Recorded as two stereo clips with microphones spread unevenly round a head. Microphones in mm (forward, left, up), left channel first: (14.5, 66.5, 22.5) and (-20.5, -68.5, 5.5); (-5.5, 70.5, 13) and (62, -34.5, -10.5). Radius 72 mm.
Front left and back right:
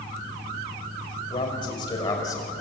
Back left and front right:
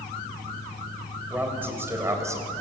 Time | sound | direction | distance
1.3 | a man speaking | 20° left | 5.5 m